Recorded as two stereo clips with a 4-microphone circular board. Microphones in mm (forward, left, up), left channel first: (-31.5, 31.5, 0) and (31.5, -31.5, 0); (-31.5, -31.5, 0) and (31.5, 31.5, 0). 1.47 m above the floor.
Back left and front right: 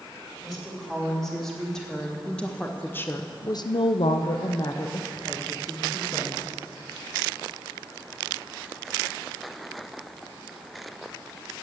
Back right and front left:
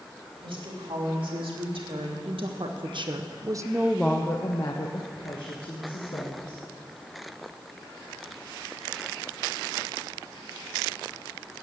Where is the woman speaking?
45° left, 3 m; by 6.6 s 155° right, 2.5 m.